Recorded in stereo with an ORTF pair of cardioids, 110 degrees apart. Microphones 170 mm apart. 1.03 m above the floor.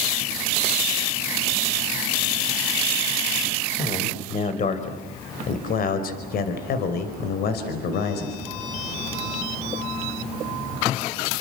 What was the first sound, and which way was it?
A man speaking, 40° left.